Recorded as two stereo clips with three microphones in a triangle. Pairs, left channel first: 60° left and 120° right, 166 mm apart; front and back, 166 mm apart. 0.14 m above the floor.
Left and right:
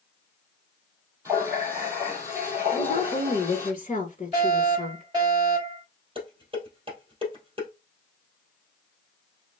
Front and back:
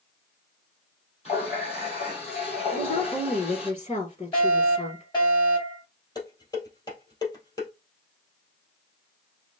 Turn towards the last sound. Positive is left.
turn(degrees=-65)